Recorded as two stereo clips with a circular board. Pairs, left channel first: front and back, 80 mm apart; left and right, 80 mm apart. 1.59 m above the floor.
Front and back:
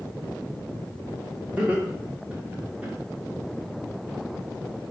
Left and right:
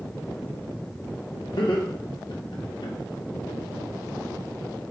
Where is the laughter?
110° left, 1.0 m.